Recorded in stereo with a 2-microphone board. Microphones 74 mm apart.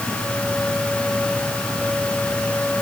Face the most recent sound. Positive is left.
No sound to turn to.